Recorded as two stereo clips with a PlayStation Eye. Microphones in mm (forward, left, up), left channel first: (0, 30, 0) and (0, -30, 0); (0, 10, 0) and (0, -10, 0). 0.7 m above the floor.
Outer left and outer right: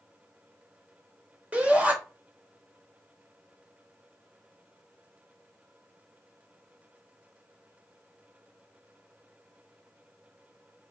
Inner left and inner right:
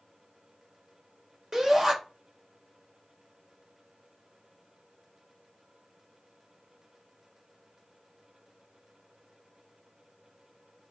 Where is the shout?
25° right (ahead or behind), 3 m.